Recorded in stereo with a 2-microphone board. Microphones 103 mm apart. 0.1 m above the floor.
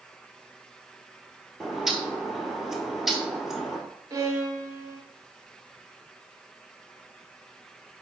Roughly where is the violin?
Right.